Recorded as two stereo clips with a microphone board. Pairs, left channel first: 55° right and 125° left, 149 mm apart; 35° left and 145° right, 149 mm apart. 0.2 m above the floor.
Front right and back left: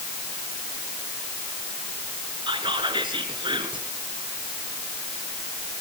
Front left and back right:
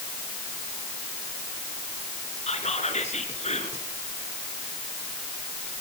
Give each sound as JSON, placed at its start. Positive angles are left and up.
{"t": 2.5, "sound": "whispering", "azimuth_deg": 70, "distance_m": 2.5}